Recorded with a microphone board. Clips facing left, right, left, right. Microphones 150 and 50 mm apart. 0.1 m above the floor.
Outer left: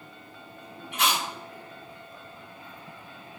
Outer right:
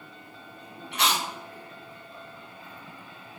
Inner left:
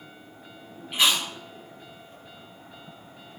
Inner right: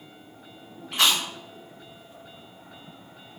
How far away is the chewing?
About 2.0 m.